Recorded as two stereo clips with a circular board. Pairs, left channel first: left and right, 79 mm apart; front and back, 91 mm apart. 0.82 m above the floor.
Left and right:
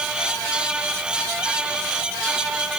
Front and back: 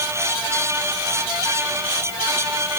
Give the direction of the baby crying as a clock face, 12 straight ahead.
No baby crying in this recording.